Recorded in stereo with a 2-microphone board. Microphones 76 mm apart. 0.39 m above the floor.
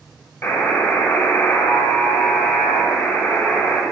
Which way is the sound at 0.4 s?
30° left (ahead or behind).